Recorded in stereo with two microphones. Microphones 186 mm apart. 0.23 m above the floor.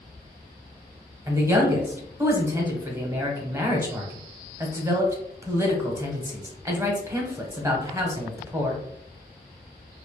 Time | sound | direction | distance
1.3 | a man speaking | 15° right (ahead or behind) | 1.0 m